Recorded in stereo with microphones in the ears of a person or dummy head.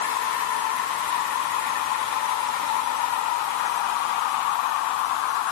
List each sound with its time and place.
Only background noise.